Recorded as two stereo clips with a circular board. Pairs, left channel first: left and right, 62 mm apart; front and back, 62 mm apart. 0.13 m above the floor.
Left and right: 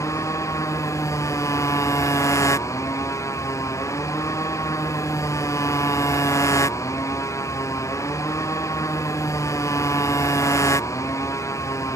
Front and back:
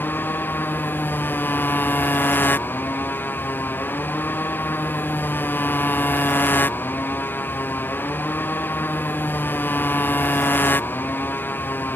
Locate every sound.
0.0 s a motorcycle: 60° left